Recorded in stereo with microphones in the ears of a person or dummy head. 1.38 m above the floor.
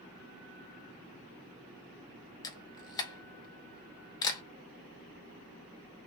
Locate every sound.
2.4 s a camera shutter: 20° left (ahead or behind), 0.8 m